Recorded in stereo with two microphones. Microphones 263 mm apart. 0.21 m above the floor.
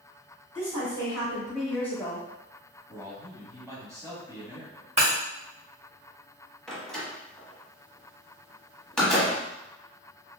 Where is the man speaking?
10° right (ahead or behind), 1.0 m.